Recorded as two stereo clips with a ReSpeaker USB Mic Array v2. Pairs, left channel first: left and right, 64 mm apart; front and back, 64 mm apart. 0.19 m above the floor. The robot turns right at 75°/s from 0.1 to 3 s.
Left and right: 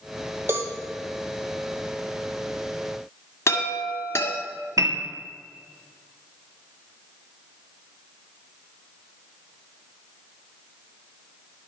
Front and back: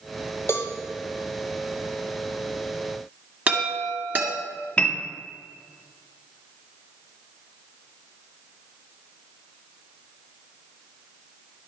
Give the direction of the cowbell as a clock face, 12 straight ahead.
1 o'clock.